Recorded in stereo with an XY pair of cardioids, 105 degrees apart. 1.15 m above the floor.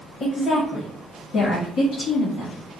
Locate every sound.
0.2 s a woman speaking: 55° left, 1.0 m; by 2.6 s 75° left, 2.5 m